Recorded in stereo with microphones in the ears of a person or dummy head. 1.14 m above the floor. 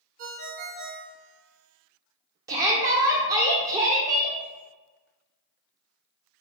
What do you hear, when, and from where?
0.2 s a ringtone: 45° right (ahead or behind), 0.8 m
2.5 s a shout: 20° right (ahead or behind), 0.5 m